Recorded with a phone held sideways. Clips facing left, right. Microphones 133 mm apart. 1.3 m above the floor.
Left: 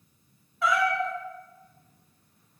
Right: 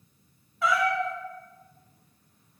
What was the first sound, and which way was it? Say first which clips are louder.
A cat meowing: even; centre (ahead or behind).